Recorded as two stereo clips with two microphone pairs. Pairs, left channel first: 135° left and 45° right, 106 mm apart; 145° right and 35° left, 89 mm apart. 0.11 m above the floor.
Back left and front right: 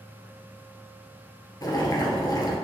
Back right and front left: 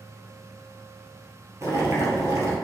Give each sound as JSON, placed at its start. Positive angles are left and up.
{"t": 1.6, "sound": "boiling", "azimuth_deg": 85, "distance_m": 2.0}